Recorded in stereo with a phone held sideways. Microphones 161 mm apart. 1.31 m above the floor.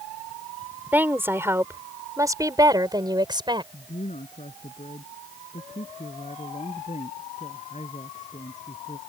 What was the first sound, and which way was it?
A woman speaking, 10° right (ahead or behind).